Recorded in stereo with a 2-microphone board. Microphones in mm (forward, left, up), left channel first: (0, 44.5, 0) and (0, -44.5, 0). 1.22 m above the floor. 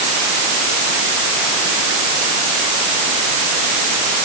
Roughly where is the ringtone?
I don't hear a ringtone.